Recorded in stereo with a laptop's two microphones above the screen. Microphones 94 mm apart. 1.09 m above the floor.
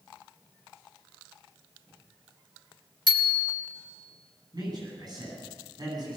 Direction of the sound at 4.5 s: 45° right (ahead or behind).